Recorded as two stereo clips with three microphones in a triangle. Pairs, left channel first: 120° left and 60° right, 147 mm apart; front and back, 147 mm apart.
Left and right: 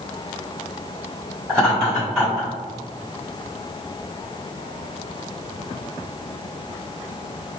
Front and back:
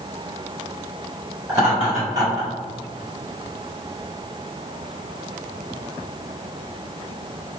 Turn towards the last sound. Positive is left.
turn(degrees=-150)